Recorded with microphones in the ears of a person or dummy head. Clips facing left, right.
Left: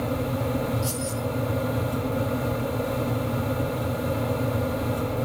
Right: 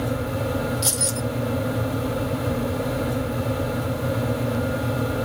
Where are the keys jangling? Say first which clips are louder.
Right 1 dB; 75° right (ahead or behind), 2.5 m.